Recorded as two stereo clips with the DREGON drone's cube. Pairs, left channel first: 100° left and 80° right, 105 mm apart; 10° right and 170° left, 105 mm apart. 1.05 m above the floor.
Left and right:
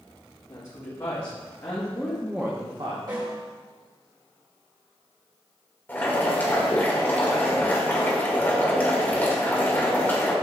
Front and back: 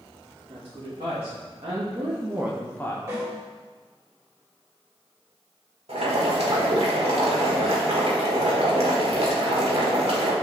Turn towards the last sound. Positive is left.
turn(degrees=175)